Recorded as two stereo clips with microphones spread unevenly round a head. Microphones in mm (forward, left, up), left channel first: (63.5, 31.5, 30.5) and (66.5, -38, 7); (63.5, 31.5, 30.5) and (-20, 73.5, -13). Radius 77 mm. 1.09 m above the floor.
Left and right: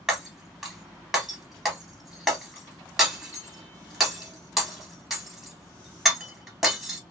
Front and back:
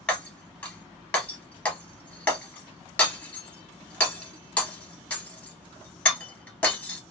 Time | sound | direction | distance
0.1 | breaking glass | 15° left | 1.4 m